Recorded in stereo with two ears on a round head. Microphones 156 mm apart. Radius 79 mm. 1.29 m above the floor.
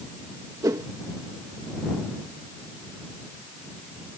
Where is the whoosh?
20° right (ahead or behind).